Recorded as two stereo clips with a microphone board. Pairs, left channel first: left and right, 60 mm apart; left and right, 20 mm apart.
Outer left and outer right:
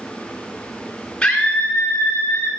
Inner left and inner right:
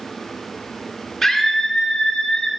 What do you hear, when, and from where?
1.2 s a scream: 20° left (ahead or behind), 1.1 m; by 2.5 s 45° left (ahead or behind), 1.5 m